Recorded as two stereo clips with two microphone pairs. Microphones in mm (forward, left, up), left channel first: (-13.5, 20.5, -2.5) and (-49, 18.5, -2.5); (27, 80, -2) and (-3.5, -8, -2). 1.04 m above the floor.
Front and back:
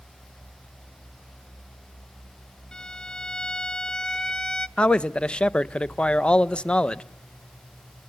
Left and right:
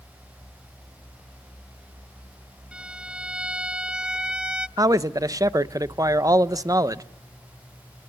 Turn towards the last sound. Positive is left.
turn(degrees=-55)